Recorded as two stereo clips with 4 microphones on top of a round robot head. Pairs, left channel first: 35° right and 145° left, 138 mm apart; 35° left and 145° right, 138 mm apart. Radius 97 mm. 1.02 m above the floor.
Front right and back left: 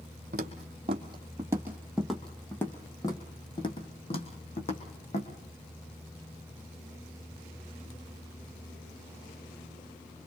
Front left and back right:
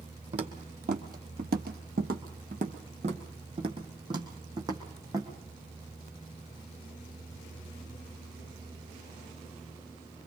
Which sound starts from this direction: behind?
Footsteps, at 0.3 s.